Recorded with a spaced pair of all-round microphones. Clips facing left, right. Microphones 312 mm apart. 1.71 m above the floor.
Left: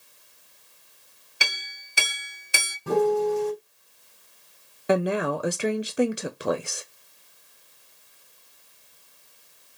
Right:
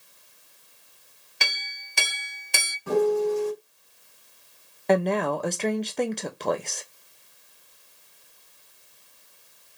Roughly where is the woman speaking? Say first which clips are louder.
Right 1 dB; centre.